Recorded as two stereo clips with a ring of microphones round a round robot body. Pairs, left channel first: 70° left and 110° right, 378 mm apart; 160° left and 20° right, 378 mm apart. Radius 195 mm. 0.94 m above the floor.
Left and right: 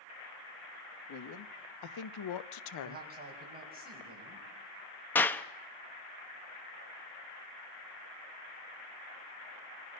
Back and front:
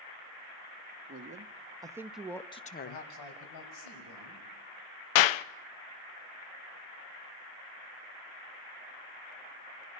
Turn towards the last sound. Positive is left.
turn(degrees=150)